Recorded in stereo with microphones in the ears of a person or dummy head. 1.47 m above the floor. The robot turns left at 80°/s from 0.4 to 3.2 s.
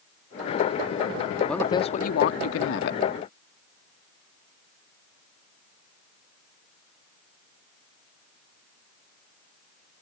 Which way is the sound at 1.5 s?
Straight behind.